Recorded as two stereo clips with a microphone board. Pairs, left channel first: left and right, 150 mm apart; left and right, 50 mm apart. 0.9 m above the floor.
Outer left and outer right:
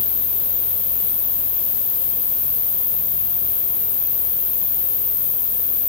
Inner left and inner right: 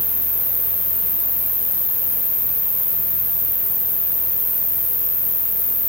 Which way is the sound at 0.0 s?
65° right (ahead or behind).